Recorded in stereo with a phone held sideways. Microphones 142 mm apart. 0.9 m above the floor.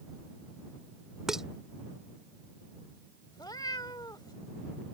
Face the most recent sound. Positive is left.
turn(degrees=30)  # may be behind; listen again after turning